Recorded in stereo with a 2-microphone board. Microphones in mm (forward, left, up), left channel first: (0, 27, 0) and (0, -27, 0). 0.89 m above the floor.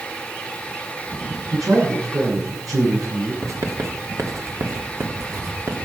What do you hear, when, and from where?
1.5 s a man speaking: 85° right, 10 m
3.4 s writing: 65° right (ahead or behind), 2.5 m